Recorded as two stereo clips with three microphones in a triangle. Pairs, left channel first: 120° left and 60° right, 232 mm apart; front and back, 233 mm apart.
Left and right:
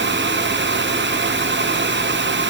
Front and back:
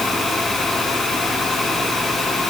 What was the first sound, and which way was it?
Only background noise.